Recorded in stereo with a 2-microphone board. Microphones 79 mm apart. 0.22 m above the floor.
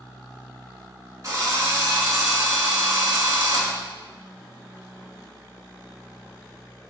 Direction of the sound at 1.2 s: 45° right (ahead or behind).